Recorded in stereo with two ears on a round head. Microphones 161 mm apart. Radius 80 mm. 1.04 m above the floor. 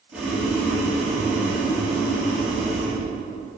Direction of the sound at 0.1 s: 5° right (ahead or behind).